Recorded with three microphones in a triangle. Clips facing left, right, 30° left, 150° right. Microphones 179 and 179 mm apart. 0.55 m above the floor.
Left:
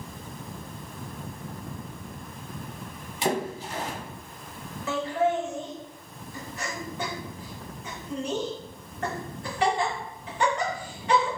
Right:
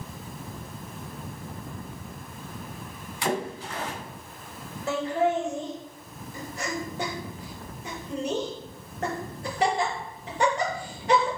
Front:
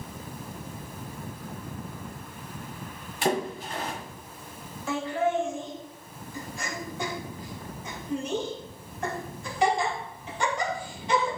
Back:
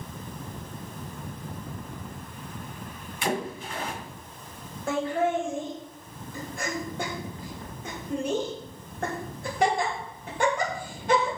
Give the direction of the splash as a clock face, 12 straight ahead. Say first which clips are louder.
Left 1 dB, front 3 dB; 11 o'clock.